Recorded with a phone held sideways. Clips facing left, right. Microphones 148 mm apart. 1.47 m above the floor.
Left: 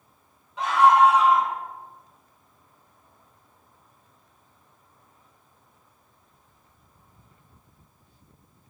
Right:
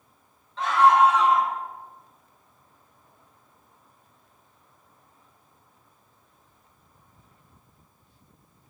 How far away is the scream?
About 1.4 m.